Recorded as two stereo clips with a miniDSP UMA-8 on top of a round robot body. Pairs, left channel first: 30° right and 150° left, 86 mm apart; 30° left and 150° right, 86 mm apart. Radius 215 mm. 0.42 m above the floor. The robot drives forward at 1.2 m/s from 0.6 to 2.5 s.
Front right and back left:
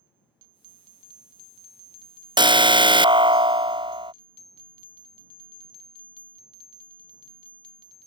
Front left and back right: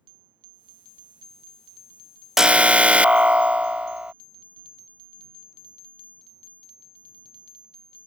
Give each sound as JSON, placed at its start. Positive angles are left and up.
{"t": 2.4, "sound": "an alarm", "azimuth_deg": 125}